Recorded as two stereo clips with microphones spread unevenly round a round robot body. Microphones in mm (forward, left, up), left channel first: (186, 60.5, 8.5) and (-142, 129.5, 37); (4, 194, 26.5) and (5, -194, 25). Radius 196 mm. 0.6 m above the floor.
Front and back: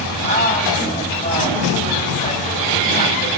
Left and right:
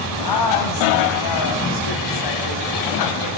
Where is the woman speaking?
55° left, 4.5 m.